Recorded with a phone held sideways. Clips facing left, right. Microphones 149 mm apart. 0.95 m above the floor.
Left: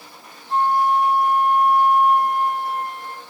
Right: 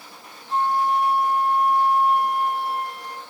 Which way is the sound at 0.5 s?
45° left (ahead or behind).